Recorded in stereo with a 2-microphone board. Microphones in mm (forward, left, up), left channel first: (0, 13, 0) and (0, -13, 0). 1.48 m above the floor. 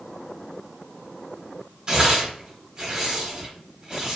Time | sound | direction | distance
1.9 | tearing paper | 30° right (ahead or behind) | 1.6 m